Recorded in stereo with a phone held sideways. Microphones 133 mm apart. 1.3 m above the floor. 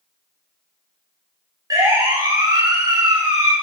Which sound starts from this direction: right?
A siren, at 1.7 s.